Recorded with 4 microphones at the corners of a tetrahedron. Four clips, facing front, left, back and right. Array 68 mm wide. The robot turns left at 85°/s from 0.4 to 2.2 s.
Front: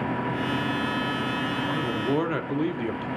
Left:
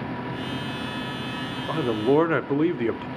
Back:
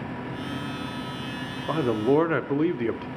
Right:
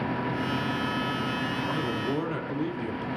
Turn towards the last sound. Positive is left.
turn(degrees=110)